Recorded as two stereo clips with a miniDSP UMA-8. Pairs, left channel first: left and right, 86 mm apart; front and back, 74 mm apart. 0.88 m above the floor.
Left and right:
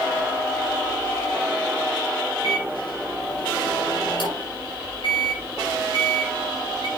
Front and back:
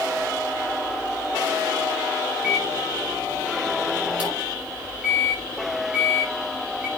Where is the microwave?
110° left, 6 m.